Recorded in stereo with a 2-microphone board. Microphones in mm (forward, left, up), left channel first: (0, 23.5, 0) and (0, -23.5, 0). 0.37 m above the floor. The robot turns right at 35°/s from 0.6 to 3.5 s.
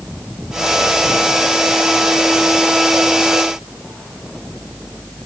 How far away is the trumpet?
I don't hear a trumpet.